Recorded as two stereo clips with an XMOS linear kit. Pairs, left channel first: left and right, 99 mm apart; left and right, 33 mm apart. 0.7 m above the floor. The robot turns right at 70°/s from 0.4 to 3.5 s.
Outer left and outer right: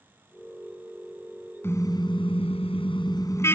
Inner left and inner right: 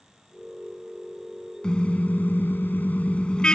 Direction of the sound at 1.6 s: 25° left.